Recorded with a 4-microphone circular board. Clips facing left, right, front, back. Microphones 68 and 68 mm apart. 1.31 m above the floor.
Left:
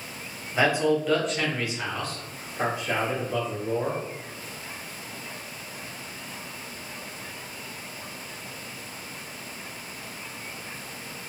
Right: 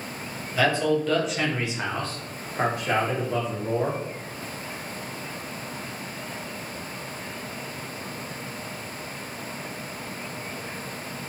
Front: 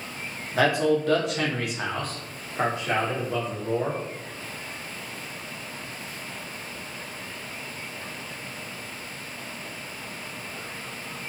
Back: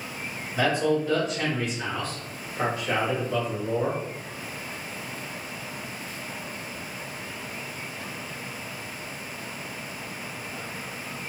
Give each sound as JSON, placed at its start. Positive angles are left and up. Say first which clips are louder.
{"t": 0.5, "sound": "a man speaking", "louder": "even, front 2 dB", "azimuth_deg": 20, "distance_m": 0.9}